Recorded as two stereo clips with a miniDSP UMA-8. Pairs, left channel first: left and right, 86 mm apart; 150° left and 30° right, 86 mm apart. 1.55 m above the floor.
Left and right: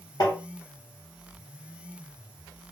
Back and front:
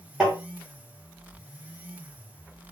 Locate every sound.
0.2 s tapping: 55° left, 1.3 m